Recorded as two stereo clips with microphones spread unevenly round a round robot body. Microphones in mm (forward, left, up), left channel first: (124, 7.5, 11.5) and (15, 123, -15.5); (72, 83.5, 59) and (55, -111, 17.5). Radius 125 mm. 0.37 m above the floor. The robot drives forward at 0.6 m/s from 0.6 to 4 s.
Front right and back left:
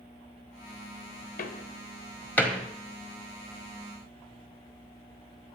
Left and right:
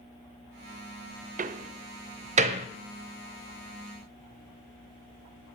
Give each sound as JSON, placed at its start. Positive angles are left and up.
{"t": 1.4, "sound": "a door slam", "azimuth_deg": -90, "distance_m": 0.8}